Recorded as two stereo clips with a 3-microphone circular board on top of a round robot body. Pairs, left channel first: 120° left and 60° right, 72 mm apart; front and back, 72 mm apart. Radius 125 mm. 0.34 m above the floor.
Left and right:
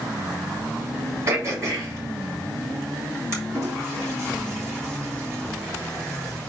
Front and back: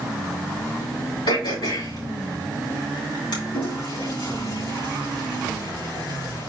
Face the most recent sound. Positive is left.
turn(degrees=-5)